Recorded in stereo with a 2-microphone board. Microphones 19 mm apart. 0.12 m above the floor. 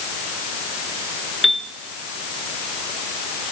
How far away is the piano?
About 1.6 m.